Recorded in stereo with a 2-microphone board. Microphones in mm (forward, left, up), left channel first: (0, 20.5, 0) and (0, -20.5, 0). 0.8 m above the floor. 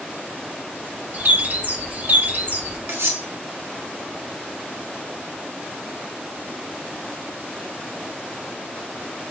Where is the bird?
50° right (ahead or behind), 0.7 m.